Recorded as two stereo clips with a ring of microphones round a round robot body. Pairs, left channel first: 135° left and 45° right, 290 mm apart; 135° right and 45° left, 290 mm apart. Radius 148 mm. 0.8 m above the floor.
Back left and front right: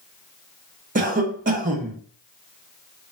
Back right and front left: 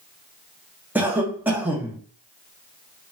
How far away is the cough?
About 0.7 m.